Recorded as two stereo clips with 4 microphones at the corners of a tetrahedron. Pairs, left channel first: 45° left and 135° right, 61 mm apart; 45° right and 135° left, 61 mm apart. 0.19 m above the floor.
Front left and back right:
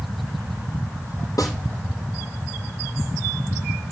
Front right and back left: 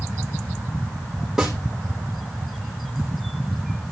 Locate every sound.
1.4 s a snare drum: 50° left, 4 m